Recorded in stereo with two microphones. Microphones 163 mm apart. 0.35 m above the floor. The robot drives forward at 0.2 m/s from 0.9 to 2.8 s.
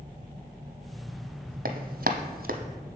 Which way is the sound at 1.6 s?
65° right (ahead or behind).